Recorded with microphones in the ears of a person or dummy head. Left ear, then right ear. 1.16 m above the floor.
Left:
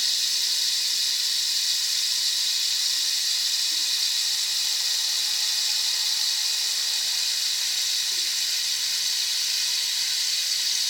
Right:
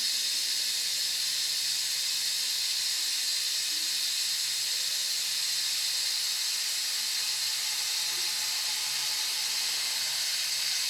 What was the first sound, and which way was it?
Running water, 40° left (ahead or behind).